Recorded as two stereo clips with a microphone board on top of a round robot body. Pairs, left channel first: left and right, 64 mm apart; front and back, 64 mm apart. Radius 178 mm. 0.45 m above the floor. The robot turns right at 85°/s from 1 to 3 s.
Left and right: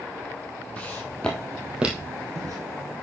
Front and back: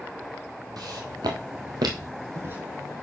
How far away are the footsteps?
About 1.5 m.